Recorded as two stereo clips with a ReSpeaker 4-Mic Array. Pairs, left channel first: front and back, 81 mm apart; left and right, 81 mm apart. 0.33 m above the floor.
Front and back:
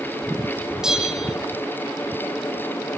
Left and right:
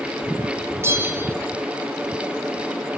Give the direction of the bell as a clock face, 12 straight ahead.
3 o'clock.